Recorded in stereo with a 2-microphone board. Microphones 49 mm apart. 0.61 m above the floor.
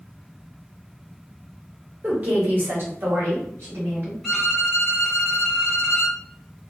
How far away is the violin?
About 1.4 m.